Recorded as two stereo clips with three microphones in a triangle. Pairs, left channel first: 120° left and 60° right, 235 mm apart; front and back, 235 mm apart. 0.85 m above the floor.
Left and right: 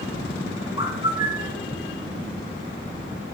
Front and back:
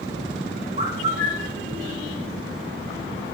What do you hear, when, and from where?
0.8 s a bird: 125° right, 1.2 m